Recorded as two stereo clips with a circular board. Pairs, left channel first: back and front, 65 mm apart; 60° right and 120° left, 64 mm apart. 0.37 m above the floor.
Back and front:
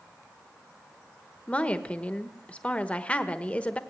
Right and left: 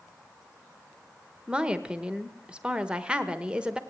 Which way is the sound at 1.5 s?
165° left.